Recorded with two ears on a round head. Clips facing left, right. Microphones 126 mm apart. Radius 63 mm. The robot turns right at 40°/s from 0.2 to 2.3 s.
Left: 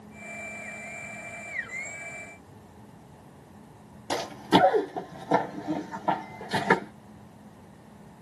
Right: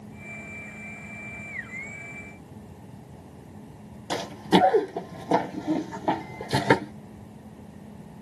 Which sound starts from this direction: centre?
Running footsteps, at 4.1 s.